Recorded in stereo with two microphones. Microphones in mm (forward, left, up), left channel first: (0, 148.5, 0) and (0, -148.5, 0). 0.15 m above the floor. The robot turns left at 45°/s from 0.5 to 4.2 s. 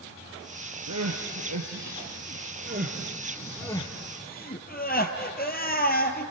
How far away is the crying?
About 1.9 m.